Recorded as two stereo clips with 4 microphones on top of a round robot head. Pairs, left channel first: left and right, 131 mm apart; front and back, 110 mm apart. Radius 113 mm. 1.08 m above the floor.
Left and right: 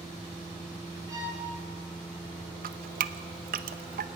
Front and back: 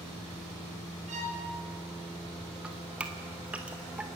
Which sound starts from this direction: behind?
A violin, at 1.1 s.